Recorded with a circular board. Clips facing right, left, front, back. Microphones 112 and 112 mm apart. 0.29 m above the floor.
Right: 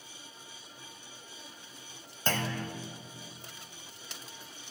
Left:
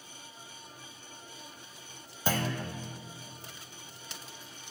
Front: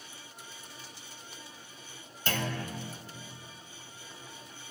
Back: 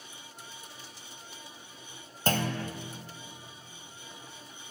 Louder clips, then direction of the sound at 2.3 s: Left 2 dB, back 4 dB; 165° left.